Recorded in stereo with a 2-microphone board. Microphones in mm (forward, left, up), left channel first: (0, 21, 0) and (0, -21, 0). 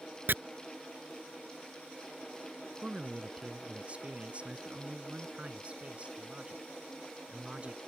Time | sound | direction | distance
0.3 | chopping | 55° right (ahead or behind) | ?
2.8 | a man speaking | 30° right (ahead or behind) | ?